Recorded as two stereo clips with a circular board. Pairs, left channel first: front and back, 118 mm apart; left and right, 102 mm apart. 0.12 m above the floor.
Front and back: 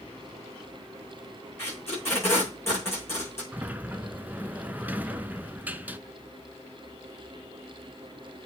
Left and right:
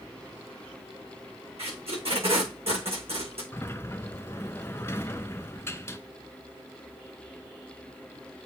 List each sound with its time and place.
1.6 s tape being pulled: 70° right, 5.5 m
3.5 s a sliding door: 125° left, 0.5 m